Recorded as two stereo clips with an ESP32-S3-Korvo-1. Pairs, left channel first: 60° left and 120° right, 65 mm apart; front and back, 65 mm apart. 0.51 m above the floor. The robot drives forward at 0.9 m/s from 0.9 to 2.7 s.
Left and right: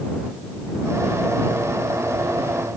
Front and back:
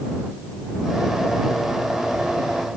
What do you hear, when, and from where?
Only background noise.